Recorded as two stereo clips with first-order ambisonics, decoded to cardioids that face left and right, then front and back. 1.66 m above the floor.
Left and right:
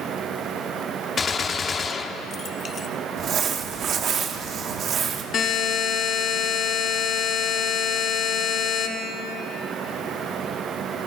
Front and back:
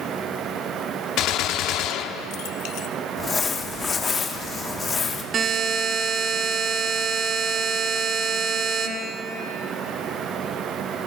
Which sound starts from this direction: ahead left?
A gunshot, at 1.2 s.